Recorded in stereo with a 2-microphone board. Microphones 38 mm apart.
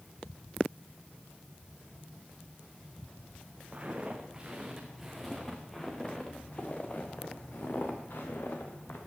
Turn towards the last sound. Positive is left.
turn(degrees=65)  # may be behind; listen again after turning